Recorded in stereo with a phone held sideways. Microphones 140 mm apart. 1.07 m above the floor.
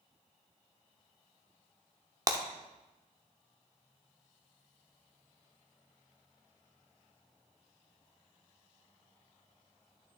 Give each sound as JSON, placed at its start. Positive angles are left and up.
{"t": 2.3, "sound": "breaking glass", "side_deg": -25, "distance_m": 0.7}